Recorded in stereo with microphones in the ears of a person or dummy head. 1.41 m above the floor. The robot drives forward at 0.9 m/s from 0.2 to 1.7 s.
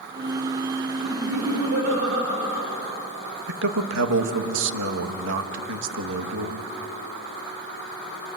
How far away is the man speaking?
About 1.5 m.